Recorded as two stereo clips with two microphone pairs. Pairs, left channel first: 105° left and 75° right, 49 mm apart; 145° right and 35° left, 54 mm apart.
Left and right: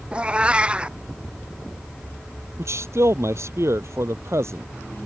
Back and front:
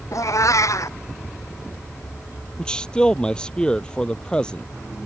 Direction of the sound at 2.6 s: 75° right.